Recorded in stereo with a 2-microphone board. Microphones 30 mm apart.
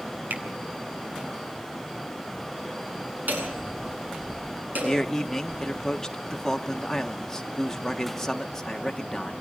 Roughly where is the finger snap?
Right.